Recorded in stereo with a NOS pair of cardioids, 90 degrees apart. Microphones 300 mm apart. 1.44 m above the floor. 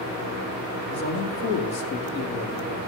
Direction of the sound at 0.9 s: 60° left.